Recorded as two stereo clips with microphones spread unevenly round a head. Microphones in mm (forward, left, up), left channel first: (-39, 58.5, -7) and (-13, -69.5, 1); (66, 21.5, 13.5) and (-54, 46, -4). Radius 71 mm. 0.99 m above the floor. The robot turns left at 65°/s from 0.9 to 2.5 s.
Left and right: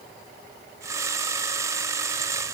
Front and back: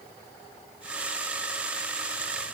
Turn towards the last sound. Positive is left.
No sound to turn to.